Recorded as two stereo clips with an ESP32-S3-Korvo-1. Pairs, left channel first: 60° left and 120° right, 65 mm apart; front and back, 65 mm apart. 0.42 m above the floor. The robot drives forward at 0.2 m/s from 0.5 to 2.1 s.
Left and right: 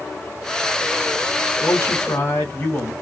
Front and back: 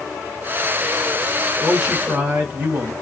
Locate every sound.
1.6 s a man speaking: 115° left, 3 m